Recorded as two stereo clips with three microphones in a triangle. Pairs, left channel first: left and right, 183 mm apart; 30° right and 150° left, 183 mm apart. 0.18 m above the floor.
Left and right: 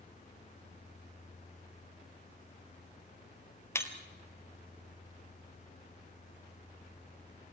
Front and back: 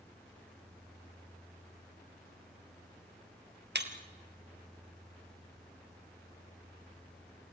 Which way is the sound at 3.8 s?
165° left.